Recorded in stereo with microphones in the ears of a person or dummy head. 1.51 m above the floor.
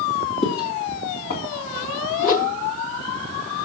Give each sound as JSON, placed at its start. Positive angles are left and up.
{"t": 0.4, "sound": "footsteps", "side_deg": 25, "distance_m": 2.0}
{"t": 2.2, "sound": "a whoosh", "side_deg": 50, "distance_m": 0.8}